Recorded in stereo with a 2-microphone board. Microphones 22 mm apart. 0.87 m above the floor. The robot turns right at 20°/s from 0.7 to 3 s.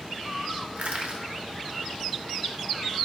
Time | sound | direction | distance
0.8 | crushing | 70° right (ahead or behind) | 1.1 m